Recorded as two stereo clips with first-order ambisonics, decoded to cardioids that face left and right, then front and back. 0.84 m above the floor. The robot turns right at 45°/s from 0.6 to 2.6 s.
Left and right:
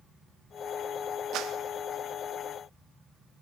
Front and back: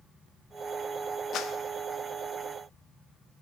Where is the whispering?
I don't hear whispering.